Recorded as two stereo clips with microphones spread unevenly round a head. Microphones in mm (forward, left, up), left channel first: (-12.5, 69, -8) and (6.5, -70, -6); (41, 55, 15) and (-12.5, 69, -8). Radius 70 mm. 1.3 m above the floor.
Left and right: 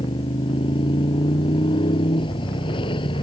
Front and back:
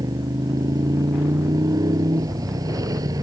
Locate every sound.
0.0 s a motorcycle: 155° left